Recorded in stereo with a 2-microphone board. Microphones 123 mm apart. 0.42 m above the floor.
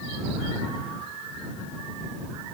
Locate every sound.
Only background noise.